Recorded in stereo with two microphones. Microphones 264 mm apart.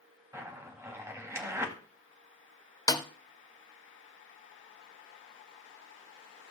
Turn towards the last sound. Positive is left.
turn(degrees=15)  # may be behind; listen again after turning